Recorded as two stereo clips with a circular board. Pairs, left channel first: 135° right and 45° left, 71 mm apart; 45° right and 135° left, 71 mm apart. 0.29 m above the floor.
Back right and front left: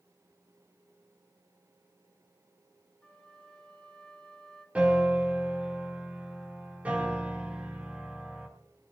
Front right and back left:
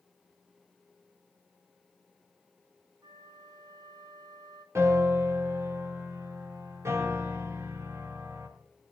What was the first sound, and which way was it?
A flute, 145° left.